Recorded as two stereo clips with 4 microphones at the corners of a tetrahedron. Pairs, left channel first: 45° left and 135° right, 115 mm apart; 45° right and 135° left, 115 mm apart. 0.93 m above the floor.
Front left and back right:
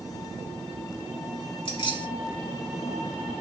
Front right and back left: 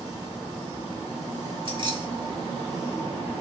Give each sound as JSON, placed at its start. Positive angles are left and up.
{"t": 1.6, "sound": "keys jangling", "azimuth_deg": 90, "distance_m": 1.7}